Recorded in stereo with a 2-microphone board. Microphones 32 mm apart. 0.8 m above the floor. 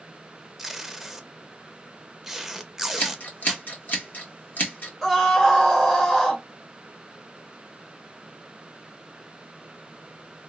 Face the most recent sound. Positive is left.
turn(degrees=5)  # may be behind; listen again after turning